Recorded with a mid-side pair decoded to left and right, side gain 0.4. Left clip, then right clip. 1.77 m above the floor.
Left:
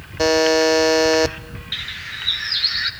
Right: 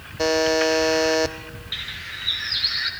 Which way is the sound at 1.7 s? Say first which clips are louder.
Left 3 dB; 30° left.